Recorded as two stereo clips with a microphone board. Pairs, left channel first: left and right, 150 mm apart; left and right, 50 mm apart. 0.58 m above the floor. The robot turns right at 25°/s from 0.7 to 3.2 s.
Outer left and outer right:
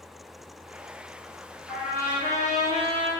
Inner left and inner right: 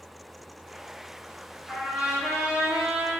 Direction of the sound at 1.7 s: 175° right.